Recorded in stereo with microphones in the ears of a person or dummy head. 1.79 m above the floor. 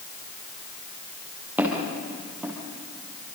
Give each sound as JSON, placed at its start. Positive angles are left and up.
{"t": 1.6, "sound": "footsteps", "side_deg": -10, "distance_m": 3.5}